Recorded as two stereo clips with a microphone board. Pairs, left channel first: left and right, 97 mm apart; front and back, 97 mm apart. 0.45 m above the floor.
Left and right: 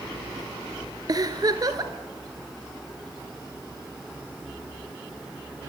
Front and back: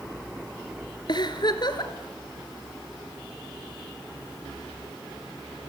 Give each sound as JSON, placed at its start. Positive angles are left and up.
{"t": 1.1, "sound": "a giggle", "azimuth_deg": -40, "distance_m": 1.8}